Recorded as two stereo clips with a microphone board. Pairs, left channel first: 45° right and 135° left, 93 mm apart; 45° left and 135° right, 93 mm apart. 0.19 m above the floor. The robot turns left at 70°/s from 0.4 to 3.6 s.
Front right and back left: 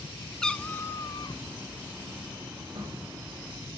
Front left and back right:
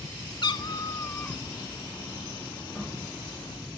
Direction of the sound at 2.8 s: 130° left.